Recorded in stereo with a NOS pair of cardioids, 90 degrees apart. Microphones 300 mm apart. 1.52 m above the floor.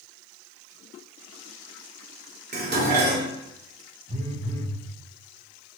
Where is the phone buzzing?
20° right, 2 m.